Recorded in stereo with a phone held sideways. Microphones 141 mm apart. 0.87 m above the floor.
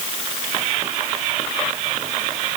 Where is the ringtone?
I don't hear a ringtone.